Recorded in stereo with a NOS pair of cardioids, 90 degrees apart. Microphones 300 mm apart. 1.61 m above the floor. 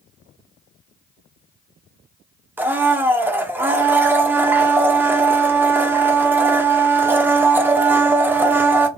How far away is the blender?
About 0.5 m.